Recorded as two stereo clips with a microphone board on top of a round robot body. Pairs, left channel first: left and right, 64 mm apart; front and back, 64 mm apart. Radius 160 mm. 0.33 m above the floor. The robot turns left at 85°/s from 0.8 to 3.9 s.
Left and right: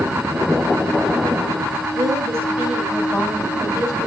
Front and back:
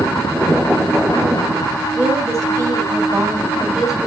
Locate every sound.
1.9 s a woman speaking: 100° right, 4.5 m; by 4.1 s 90° left, 4.5 m